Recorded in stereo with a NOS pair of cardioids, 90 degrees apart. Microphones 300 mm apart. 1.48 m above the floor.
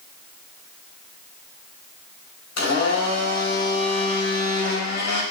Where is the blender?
65° left, 4.5 m.